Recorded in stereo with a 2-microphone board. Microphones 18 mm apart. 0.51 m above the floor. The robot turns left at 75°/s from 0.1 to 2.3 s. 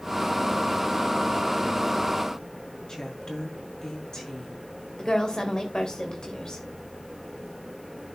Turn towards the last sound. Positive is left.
turn(degrees=50)  # may be behind; listen again after turning